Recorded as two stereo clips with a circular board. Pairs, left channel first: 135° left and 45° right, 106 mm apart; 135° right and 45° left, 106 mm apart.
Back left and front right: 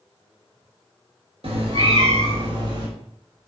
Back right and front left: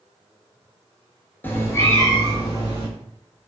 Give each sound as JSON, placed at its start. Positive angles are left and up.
{"t": 1.4, "sound": "a cat meowing", "azimuth_deg": -65, "distance_m": 0.9}